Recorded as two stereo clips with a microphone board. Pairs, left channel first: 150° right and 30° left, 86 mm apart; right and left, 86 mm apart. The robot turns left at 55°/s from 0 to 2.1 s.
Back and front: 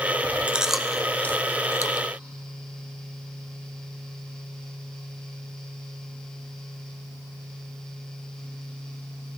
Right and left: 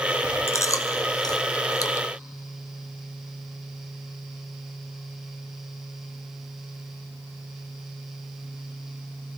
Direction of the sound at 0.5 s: 40° right.